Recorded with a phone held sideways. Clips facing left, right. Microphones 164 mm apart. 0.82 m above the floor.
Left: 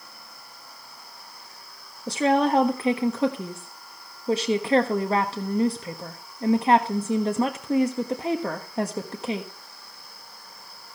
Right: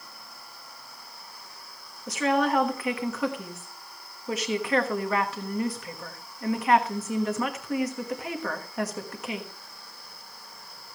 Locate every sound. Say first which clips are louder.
2.1 s a woman speaking: left 3 dB; 30° left (ahead or behind), 1.2 m